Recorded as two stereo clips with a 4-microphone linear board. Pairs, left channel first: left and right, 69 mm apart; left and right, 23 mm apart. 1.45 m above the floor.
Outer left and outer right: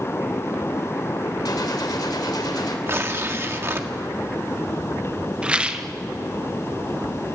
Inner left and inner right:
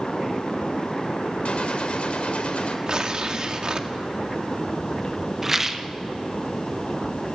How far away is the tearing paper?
About 1.6 m.